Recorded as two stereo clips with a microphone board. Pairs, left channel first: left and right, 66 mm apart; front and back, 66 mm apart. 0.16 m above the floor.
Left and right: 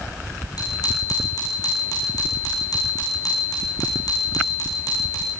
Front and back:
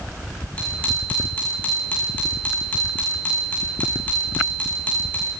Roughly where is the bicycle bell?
Left.